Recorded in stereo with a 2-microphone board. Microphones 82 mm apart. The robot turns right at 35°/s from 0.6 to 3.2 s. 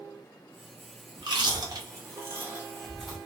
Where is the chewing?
65° right (ahead or behind), 1.0 m; by 3.2 s centre (ahead or behind), 1.0 m.